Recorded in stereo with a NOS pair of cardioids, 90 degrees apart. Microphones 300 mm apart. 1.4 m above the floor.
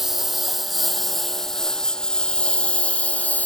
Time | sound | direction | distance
0.0 | a lawn mower | straight ahead | ?